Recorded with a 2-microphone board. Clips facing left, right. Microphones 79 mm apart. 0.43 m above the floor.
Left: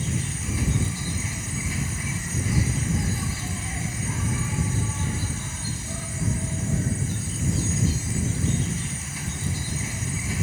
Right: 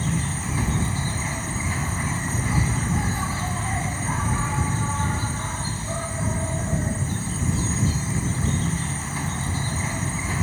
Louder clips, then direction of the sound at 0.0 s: Right 4 dB; 45° right (ahead or behind).